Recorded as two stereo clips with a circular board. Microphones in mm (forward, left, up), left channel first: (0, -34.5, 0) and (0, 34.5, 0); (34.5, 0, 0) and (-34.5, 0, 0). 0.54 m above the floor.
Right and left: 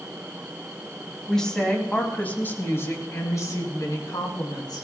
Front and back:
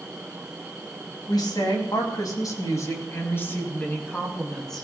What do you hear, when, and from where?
1.3 s a woman speaking: 5° right, 4 m; by 4.8 s 85° right, 4 m